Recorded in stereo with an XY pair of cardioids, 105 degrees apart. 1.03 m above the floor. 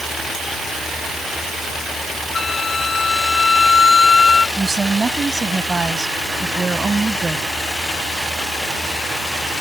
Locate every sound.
2.3 s a flute: 30° left
4.6 s a woman speaking: 25° right